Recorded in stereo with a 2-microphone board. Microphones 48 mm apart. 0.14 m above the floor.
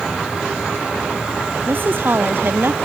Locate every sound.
1.7 s a woman speaking: 50° right (ahead or behind)